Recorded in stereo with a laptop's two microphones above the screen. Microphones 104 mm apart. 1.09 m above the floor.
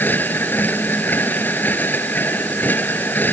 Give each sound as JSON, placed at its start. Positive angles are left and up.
{"t": 0.0, "sound": "a machine running", "side_deg": 20}